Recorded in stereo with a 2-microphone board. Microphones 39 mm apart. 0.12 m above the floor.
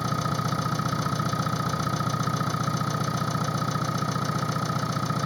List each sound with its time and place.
0.0 s an engine running: centre (ahead or behind)